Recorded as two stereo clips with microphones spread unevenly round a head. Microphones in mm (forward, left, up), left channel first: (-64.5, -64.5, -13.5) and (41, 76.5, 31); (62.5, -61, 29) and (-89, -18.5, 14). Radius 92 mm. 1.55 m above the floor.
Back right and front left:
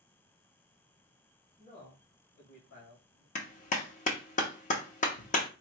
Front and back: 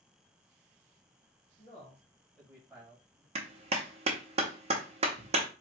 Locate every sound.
1.6 s a man speaking: 60° right, 1.4 m; by 3.2 s 130° right, 2.5 m
3.4 s a clap: 170° right, 0.7 m